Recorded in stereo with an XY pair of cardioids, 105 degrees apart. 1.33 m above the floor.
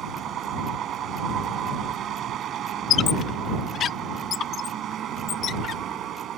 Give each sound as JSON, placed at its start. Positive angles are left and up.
{"t": 0.0, "sound": "a vehicle", "azimuth_deg": -65}
{"t": 2.9, "sound": "a squeak", "azimuth_deg": 60}